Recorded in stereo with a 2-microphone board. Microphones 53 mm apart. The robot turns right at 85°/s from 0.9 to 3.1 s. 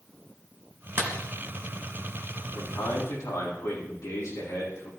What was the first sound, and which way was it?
A clap, 40° right (ahead or behind).